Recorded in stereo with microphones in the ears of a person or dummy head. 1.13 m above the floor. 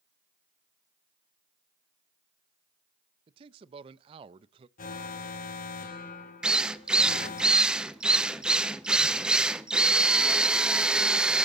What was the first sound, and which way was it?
A man speaking, 30° right (ahead or behind).